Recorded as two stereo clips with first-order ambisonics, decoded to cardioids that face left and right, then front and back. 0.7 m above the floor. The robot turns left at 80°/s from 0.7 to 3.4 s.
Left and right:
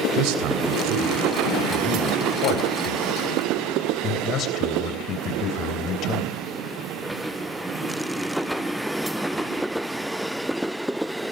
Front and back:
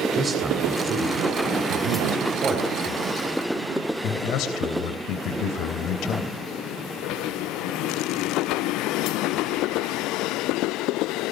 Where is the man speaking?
105° right, 3 m; by 6.3 s 40° left, 3 m.